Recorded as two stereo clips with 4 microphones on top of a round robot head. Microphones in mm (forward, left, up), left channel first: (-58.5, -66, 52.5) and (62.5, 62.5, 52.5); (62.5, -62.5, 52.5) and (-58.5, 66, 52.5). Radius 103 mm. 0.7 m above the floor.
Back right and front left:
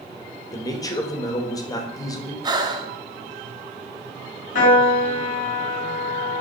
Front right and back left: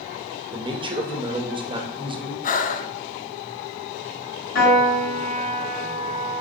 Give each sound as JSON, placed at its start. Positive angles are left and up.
{"t": 0.5, "sound": "a man speaking", "azimuth_deg": 175, "distance_m": 1.0}
{"t": 2.4, "sound": "breathing", "azimuth_deg": -15, "distance_m": 0.6}
{"t": 4.5, "sound": "a piano", "azimuth_deg": -85, "distance_m": 2.0}